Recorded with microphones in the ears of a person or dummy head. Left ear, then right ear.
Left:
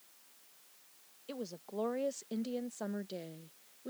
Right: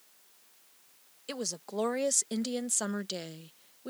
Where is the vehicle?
No vehicle in this recording.